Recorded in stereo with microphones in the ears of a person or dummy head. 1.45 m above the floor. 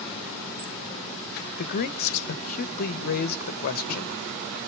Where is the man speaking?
50° left (ahead or behind), 1.1 m.